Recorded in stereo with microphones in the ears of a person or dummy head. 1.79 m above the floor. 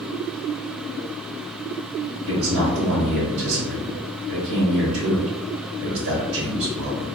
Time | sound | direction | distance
2.3 | a man speaking | 70° right (ahead or behind) | 1.1 m